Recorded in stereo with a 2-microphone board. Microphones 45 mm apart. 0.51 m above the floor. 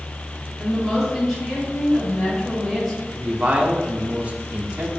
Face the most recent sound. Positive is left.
turn(degrees=-35)  # may be behind; listen again after turning